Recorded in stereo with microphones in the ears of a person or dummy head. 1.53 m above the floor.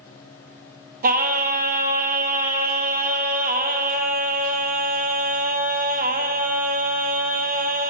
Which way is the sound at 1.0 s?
40° right (ahead or behind).